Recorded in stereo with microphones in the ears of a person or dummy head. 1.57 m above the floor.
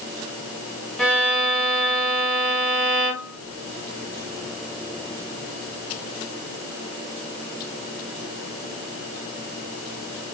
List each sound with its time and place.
1.0 s a violin: centre (ahead or behind), 0.6 m